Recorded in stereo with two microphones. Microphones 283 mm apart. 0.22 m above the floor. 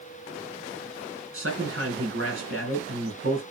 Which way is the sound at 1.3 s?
50° right (ahead or behind).